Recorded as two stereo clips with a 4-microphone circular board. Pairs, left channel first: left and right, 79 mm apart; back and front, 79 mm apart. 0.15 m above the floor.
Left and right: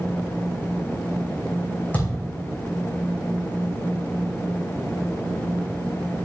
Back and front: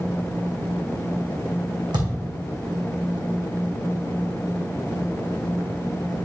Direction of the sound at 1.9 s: 20° left.